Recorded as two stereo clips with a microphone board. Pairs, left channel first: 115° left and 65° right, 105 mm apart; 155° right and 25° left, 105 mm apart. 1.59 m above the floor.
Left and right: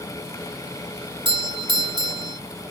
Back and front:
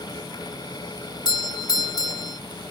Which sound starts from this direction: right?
A doorbell, at 1.2 s.